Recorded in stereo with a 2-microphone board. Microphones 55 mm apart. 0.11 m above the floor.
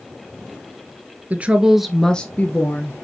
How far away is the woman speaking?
About 1.4 m.